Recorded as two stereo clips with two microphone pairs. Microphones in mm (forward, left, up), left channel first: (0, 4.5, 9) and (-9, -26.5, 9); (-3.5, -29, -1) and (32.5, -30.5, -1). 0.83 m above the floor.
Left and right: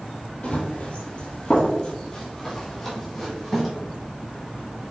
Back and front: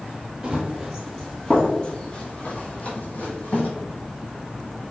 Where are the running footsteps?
60° left, 1.0 m; by 3.7 s 160° left, 1.7 m.